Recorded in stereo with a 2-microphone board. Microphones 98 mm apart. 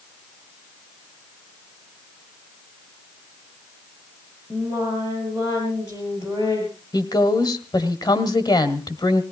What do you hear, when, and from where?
4.5 s singing: 40° left (ahead or behind), 7 m
6.9 s a woman speaking: 45° left (ahead or behind), 1.7 m